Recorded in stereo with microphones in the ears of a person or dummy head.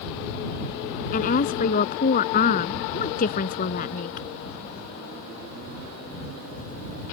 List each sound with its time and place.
1.1 s a woman speaking: 40° left (ahead or behind)